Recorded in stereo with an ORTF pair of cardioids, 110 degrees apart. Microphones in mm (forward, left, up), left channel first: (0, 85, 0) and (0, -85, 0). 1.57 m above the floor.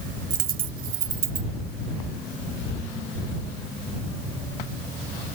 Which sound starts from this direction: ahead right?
A dropped coin, at 0.3 s.